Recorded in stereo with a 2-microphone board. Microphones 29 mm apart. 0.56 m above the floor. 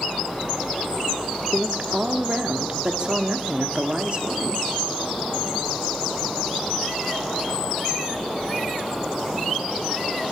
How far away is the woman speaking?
About 1.1 m.